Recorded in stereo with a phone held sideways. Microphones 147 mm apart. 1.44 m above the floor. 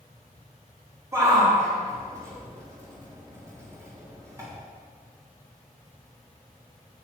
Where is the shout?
20° right (ahead or behind), 3.5 m.